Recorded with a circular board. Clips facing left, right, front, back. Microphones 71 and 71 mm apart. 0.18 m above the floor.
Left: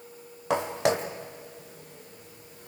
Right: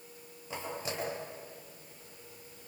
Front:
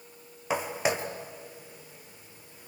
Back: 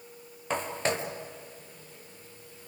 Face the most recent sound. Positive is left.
turn(degrees=75)